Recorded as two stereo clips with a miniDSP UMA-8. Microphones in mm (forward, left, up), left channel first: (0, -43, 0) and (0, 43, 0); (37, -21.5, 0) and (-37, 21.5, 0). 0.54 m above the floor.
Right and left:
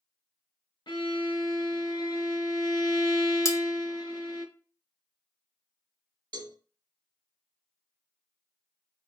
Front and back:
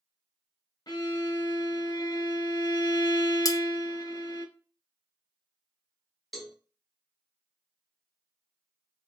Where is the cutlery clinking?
50° right, 0.6 m.